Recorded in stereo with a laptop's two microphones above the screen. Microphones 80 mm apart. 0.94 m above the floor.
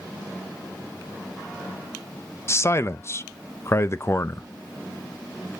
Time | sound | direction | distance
2.5 | a man speaking | 35° left (ahead or behind) | 0.6 m